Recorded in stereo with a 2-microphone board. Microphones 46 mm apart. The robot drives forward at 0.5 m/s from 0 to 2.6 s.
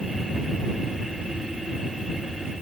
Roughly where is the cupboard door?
No cupboard door in this recording.